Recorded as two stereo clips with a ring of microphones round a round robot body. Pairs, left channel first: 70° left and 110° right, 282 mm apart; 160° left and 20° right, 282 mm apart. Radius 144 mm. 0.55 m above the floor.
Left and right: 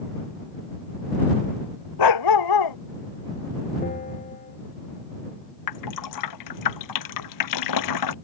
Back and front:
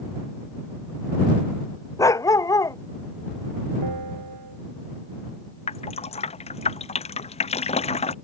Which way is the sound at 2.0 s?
80° left.